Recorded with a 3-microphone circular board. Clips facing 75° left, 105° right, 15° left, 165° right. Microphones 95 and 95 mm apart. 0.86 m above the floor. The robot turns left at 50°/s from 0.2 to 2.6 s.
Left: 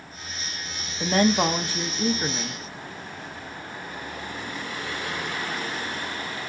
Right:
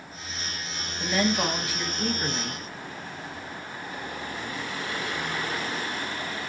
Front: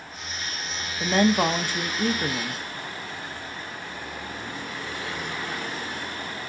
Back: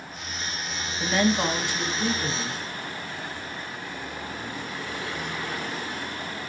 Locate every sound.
1.0 s a woman speaking: 60° left, 0.6 m; by 2.6 s 20° right, 0.6 m